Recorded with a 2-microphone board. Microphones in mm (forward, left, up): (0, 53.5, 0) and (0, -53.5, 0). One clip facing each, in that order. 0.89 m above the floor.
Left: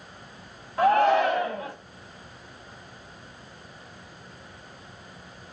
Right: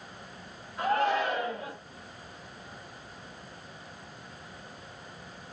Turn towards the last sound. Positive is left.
turn(degrees=70)  # may be behind; listen again after turning